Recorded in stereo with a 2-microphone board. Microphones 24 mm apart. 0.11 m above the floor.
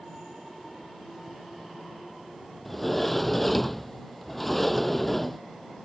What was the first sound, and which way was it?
A sliding door, 5° left (ahead or behind).